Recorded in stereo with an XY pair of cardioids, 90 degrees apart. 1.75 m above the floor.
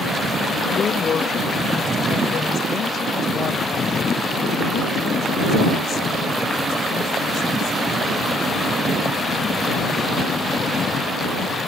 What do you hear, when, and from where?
0.7 s a woman speaking: 50° left; by 8.1 s 70° left